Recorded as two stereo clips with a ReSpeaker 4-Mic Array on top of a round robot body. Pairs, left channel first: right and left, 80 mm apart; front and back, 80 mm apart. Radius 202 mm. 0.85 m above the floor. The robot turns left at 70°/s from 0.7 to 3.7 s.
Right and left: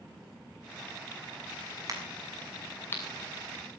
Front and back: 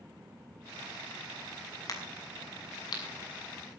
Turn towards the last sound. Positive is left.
turn(degrees=-80)